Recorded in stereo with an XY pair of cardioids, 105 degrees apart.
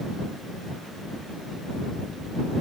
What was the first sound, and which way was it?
Only background noise.